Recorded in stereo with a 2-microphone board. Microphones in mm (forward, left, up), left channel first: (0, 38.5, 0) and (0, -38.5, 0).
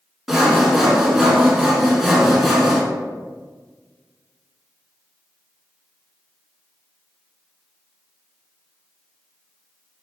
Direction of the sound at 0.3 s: 5° right (ahead or behind).